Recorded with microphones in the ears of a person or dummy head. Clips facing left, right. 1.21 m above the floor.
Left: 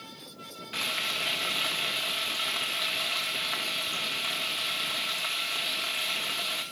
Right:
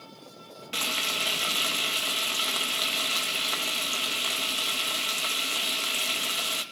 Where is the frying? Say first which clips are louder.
Right 4 dB; 40° right (ahead or behind), 2.0 m.